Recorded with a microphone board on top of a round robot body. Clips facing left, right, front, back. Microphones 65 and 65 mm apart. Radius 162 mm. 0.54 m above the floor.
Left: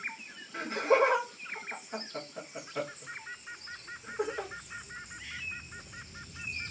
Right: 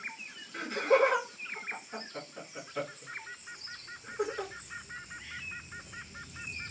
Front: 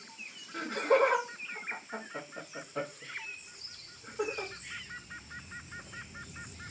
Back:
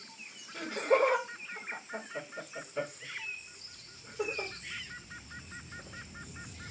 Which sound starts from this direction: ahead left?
Laughter, at 0.5 s.